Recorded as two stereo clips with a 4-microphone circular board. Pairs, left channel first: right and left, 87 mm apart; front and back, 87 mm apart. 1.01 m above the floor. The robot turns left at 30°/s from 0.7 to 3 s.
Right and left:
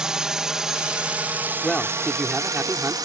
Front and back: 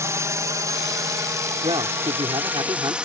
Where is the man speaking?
170° right; by 3.0 s 150° left.